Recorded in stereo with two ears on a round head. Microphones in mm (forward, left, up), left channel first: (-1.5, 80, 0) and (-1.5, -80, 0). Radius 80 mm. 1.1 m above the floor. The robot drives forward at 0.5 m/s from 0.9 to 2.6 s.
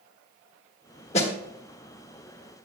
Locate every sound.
1.1 s a snare drum: 35° left (ahead or behind), 1.3 m